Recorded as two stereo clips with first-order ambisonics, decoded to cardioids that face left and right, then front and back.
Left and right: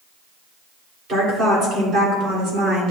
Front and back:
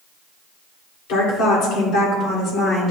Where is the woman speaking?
30° right, 3 m; by 2.9 s 55° right, 3 m.